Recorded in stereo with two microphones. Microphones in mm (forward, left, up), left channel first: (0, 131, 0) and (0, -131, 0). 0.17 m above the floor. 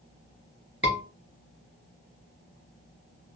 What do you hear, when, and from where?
0.8 s a scream: 50° right (ahead or behind), 2 m